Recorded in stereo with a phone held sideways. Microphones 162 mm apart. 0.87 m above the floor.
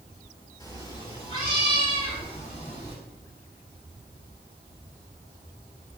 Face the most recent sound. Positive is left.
turn(degrees=50)  # may be behind; listen again after turning